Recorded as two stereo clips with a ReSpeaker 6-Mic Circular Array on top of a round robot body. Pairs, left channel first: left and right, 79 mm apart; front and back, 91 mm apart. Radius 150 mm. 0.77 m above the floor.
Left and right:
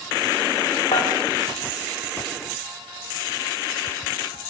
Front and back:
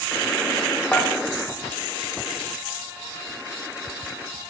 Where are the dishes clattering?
75° left, 1.9 m.